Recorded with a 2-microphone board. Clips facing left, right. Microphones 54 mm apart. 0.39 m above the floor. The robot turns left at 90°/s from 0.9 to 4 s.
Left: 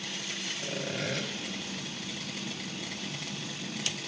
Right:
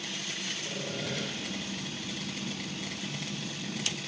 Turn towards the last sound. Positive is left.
turn(degrees=165)